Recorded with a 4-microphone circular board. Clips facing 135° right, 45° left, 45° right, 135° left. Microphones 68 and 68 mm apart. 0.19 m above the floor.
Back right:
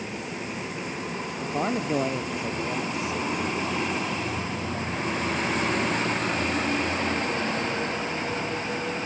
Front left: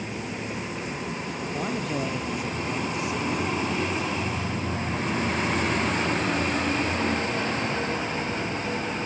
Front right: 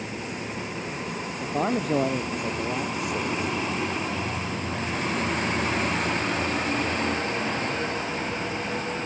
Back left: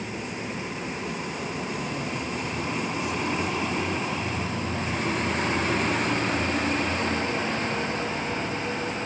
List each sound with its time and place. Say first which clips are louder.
1.4 s a man speaking: back right 4 dB, front right 5 dB; 70° right